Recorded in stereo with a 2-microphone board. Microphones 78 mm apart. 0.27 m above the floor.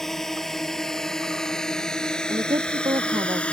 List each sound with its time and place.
0.0 s a drone: 5° left (ahead or behind); by 3.5 s 15° left (ahead or behind)
2.3 s a woman speaking: 75° right (ahead or behind)